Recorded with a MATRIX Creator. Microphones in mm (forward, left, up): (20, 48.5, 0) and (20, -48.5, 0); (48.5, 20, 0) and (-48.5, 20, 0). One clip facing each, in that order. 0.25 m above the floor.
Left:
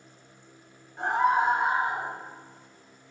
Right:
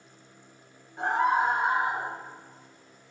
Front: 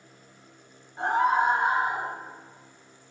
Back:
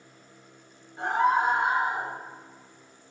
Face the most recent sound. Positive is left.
turn(degrees=50)